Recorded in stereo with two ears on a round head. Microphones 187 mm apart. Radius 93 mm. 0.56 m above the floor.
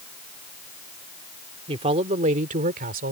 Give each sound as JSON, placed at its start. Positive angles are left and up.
{"t": 1.7, "sound": "a man speaking", "side_deg": -25}